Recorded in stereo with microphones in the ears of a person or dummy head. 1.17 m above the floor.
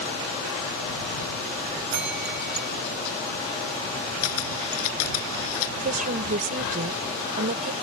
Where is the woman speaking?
40° right (ahead or behind).